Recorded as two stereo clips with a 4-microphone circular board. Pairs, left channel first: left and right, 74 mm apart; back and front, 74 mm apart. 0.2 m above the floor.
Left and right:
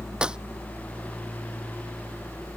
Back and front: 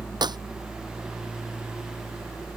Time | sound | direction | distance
0.2 | a clap | 10° right | ?